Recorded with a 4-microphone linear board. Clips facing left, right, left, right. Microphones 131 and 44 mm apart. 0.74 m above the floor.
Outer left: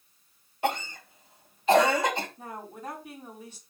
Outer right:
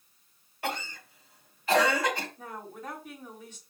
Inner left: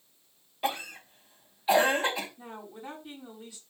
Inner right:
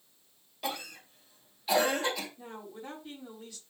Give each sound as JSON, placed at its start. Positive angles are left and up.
{"t": 0.6, "sound": "a cough", "side_deg": 25, "distance_m": 2.5}
{"t": 2.4, "sound": "a woman speaking", "side_deg": 10, "distance_m": 4.5}